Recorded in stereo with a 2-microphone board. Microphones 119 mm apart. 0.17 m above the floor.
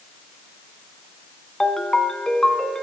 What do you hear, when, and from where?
1.6 s a ringtone: 5° left (ahead or behind), 0.8 m